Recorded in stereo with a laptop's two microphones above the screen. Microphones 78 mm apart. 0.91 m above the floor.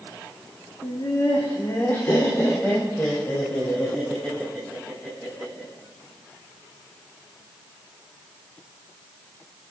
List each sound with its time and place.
0.8 s laughter: 60° left (ahead or behind), 2 m; by 5.7 s 20° left (ahead or behind), 7 m